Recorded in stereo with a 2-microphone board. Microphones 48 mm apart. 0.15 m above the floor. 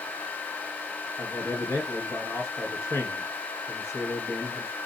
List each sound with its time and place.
1.2 s a man speaking: 65° left (ahead or behind), 4 m